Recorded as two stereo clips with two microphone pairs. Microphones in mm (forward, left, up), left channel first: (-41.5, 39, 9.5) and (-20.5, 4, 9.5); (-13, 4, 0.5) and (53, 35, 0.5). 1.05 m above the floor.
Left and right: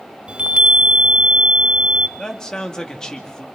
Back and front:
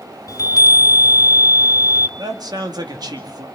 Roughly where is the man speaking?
Ahead left.